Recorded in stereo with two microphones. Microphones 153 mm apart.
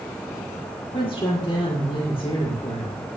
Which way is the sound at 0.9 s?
30° left (ahead or behind).